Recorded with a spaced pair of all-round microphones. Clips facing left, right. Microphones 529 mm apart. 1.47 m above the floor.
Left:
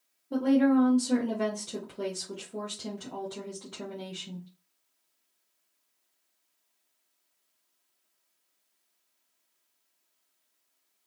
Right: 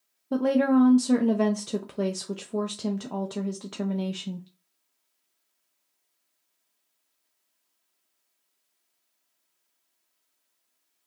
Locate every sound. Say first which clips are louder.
0.3 s a woman speaking: right 1 dB; 80° right, 0.5 m